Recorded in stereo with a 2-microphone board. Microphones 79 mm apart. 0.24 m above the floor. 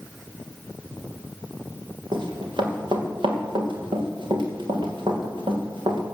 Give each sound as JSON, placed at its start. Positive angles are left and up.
{"t": 2.1, "sound": "running footsteps", "side_deg": -75, "distance_m": 5.0}